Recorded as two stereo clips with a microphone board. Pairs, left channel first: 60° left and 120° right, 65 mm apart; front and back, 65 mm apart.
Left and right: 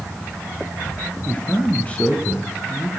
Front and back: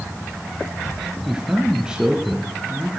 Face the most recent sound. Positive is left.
turn(degrees=110)